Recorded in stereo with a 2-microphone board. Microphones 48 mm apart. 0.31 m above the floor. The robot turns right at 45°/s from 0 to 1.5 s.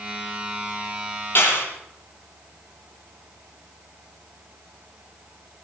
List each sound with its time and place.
1.4 s a clap: 55° left (ahead or behind), 7 m; by 1.7 s 60° left (ahead or behind), 7 m